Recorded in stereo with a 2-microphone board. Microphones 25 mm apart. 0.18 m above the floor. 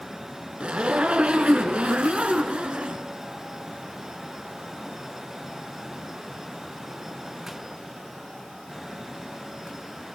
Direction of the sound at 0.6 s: 55° right (ahead or behind).